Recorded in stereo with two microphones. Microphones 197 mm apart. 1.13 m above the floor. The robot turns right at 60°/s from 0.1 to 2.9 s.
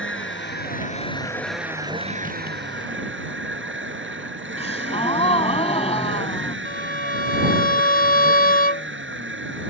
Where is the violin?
45° left (ahead or behind).